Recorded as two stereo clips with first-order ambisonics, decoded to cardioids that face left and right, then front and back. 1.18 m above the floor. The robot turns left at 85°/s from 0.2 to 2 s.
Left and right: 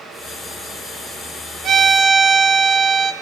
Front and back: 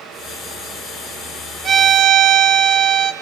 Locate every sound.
1.6 s a violin: 130° right, 1.2 m; by 3.1 s 160° right, 1.2 m